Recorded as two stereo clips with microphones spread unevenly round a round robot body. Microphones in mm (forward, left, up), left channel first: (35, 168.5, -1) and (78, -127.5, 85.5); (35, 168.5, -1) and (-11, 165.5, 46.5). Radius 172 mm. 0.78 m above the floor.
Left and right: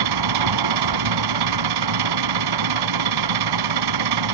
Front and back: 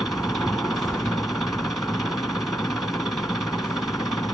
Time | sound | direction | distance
0.0 | an engine running | 90° right | ?